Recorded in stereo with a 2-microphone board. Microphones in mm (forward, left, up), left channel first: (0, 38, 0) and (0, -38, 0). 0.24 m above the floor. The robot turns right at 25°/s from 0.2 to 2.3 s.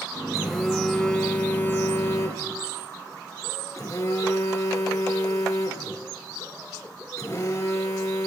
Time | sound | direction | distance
0.3 | a phone buzzing | 5° right | 2.5 m